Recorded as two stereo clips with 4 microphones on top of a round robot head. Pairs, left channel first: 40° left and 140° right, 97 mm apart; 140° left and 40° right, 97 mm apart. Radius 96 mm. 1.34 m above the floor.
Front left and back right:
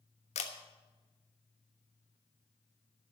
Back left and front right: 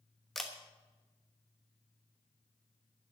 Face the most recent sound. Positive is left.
turn(degrees=50)